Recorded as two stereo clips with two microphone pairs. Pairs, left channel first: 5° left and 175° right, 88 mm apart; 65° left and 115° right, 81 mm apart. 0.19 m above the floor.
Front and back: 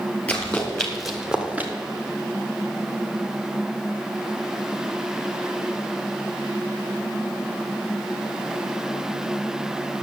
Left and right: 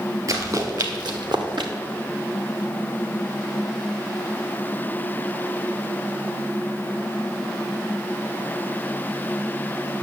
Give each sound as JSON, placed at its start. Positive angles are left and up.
{"t": 0.3, "sound": "running footsteps", "azimuth_deg": -75, "distance_m": 3.0}